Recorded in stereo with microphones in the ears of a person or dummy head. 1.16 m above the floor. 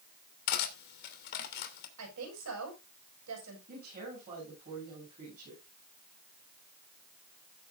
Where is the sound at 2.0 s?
85° right, 7 m.